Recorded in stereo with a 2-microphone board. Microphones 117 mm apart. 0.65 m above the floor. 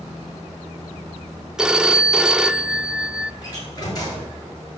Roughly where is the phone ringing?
Centre.